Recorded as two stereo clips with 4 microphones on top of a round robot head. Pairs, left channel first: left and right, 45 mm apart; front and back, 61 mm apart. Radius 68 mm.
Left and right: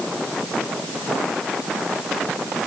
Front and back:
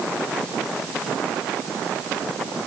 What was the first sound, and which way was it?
Only background noise.